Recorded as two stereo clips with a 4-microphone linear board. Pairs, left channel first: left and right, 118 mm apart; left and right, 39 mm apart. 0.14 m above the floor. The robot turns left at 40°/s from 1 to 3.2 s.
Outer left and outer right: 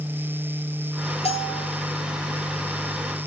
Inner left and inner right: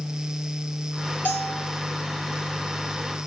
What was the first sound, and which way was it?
A bell, 55° left (ahead or behind).